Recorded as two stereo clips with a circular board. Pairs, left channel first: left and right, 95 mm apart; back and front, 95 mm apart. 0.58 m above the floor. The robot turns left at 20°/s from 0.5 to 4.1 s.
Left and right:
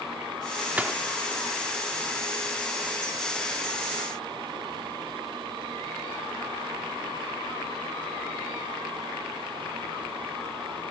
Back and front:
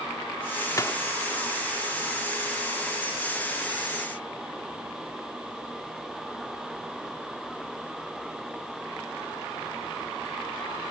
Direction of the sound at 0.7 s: 155° right.